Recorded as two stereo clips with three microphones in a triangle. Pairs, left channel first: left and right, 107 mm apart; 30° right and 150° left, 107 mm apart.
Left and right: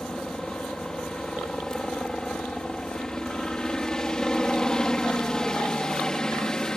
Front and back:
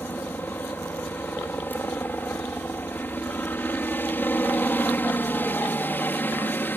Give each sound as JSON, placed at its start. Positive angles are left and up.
{"t": 0.0, "sound": "a helicopter", "azimuth_deg": 15}